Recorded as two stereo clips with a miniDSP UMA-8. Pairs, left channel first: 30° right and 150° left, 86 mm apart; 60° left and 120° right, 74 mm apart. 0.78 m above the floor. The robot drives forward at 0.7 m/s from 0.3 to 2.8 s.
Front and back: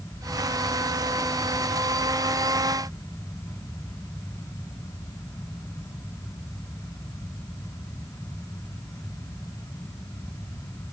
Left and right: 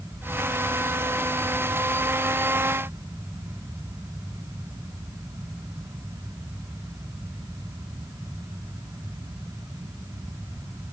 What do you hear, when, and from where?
Only background noise.